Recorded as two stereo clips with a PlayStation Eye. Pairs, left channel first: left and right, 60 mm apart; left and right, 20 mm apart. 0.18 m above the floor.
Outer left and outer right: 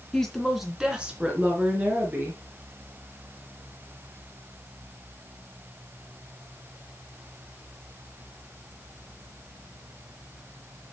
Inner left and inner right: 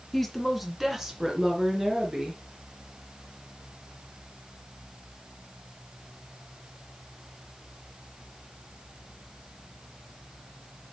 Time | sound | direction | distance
0.1 | a woman speaking | 5° left (ahead or behind) | 2 m